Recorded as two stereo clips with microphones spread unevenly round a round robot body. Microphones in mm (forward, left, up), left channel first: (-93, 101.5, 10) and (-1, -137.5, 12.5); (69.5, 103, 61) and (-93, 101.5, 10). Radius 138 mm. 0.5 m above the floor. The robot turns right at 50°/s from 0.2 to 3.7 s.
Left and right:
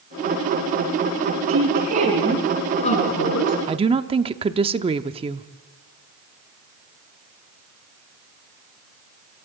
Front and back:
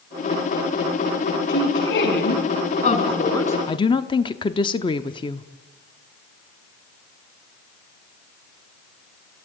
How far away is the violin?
I don't hear a violin.